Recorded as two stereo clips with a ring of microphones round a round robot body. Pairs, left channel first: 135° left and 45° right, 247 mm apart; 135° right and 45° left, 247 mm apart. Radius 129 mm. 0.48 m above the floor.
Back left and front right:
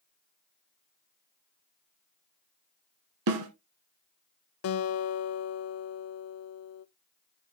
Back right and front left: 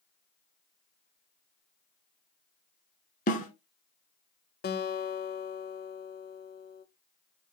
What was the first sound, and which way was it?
A snare drum, 75° right.